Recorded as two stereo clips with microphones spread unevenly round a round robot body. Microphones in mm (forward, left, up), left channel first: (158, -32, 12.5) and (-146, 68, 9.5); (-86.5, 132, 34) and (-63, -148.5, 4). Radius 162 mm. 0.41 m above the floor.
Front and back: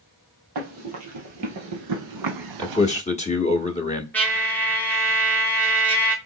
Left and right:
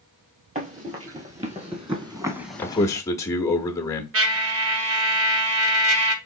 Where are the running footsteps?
150° right, 3 m; by 3.0 s 125° left, 0.6 m.